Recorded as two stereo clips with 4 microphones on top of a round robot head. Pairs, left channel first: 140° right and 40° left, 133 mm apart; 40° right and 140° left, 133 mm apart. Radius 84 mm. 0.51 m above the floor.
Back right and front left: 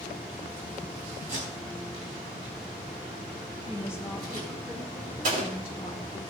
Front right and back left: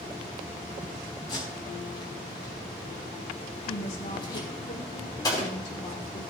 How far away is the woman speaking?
About 1.2 m.